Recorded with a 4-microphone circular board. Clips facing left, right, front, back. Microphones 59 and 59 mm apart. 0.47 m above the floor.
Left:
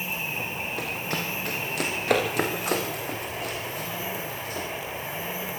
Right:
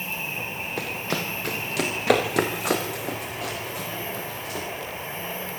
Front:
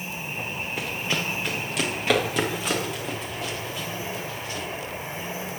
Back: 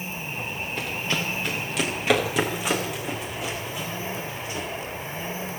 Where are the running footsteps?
85° right, 5 m; by 4.7 s 105° right, 7 m.